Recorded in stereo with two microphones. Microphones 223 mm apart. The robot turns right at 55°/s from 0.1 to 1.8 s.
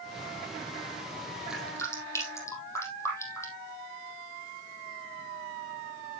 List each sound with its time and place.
1.5 s dripping: 5° right (ahead or behind), 4.5 m; by 3.7 s 15° left (ahead or behind), 4.5 m